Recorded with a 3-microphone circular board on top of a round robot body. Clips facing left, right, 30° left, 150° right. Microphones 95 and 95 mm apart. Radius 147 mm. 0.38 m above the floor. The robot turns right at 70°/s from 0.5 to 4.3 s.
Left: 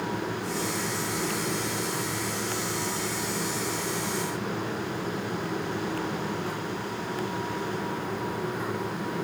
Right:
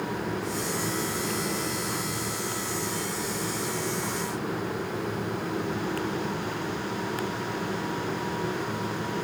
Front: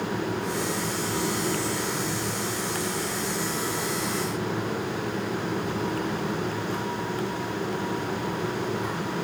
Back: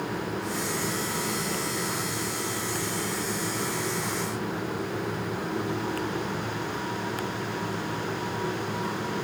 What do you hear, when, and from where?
Only background noise.